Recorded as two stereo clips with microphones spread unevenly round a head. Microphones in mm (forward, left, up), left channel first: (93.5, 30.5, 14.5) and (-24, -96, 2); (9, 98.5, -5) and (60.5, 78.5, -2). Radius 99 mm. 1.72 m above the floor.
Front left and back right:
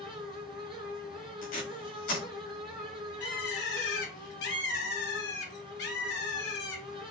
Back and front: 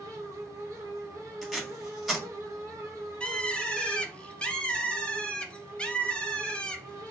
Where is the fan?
80° right, 1.2 m.